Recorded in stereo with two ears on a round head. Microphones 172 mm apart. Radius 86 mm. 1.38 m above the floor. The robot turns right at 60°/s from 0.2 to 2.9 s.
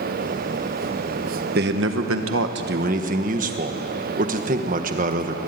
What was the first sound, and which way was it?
A man speaking, 125° right.